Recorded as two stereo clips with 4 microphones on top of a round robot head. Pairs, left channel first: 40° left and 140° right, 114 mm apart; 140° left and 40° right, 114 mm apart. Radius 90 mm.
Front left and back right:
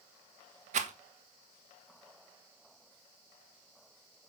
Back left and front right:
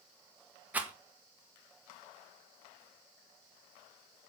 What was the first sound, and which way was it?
A rattle, 120° right.